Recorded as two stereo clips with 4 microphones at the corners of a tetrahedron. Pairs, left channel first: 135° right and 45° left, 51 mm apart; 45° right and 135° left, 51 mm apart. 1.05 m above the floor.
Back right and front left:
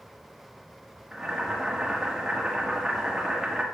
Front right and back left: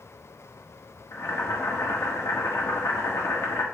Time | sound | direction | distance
1.1 | boiling | 35° right | 1.3 m